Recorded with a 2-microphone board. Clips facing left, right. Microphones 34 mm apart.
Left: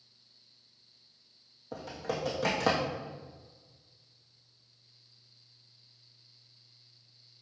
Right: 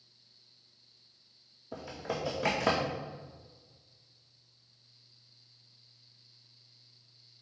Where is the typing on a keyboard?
75° left (ahead or behind), 2.5 m.